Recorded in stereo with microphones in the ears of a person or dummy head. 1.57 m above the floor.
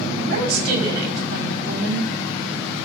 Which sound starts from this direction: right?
A woman speaking, at 0.1 s.